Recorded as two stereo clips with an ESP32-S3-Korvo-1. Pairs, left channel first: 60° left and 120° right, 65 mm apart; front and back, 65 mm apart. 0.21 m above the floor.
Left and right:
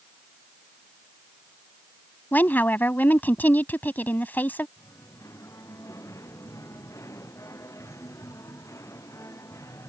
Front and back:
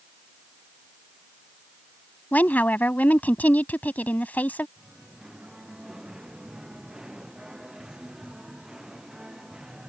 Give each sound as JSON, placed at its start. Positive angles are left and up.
{"t": 2.3, "sound": "a woman speaking", "azimuth_deg": 35}
{"t": 4.8, "sound": "singing", "azimuth_deg": 100}